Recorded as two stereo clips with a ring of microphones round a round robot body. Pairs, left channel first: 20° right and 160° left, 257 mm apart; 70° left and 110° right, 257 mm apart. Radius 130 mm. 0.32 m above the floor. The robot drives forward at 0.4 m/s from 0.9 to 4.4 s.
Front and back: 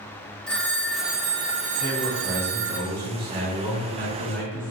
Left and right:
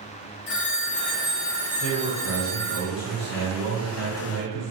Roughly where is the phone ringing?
Ahead left.